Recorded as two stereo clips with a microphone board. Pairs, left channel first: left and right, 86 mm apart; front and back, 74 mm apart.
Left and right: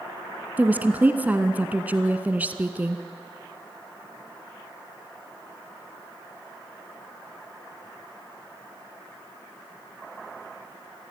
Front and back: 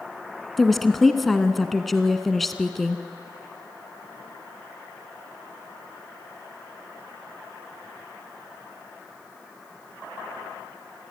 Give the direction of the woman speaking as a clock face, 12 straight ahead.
3 o'clock.